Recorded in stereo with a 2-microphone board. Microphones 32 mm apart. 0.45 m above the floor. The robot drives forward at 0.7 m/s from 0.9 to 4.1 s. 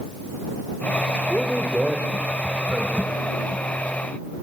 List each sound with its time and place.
1.3 s a man speaking: 20° right (ahead or behind), 1.0 m; by 3.3 s 10° right (ahead or behind), 2 m